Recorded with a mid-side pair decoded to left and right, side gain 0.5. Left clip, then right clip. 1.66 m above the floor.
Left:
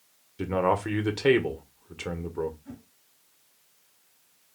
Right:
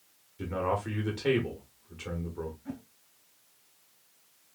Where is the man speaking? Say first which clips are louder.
Left 6 dB; 50° left, 1.2 m.